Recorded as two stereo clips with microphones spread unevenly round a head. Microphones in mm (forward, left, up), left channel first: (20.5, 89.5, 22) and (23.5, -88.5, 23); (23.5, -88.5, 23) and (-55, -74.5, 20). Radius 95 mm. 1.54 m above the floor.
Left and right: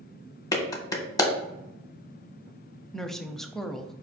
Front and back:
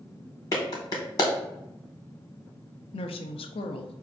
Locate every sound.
0.5 s a clap: 25° left, 0.8 m
2.9 s a woman speaking: 5° left, 0.5 m